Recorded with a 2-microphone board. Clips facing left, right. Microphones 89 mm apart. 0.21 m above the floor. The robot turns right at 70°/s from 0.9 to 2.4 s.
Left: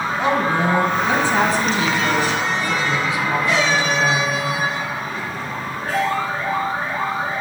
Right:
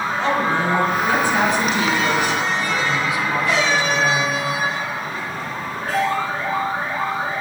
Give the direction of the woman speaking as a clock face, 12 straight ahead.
11 o'clock.